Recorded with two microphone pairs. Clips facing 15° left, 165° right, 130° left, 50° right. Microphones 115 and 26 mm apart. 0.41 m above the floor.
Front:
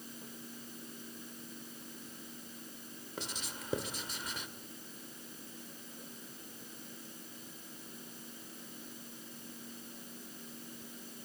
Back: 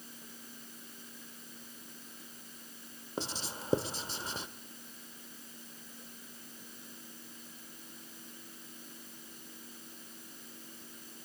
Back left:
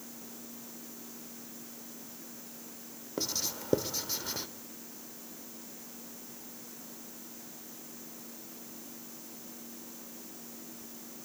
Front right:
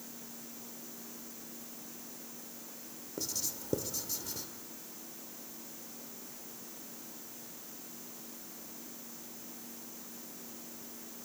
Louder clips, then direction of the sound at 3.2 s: Back 5 dB, back left 5 dB; 150° left.